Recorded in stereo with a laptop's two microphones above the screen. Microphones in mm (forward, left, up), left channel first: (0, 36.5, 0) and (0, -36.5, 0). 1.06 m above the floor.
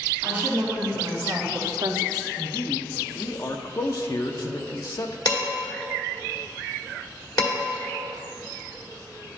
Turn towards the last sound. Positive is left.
turn(degrees=55)  # may be behind; listen again after turning